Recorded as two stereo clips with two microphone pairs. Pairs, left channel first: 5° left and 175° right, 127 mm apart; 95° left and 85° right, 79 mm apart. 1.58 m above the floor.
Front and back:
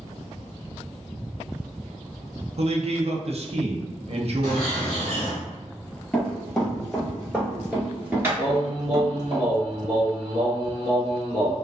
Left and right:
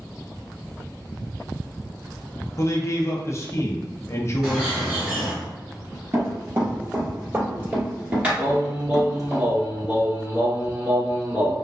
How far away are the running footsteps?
About 1.9 m.